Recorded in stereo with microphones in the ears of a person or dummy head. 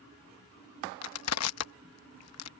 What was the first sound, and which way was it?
Crushing, 75° left (ahead or behind).